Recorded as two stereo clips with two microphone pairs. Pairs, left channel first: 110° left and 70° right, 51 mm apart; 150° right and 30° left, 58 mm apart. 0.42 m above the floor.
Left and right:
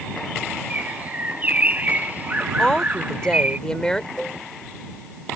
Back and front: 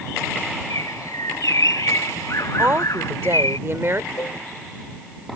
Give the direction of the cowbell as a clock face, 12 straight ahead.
6 o'clock.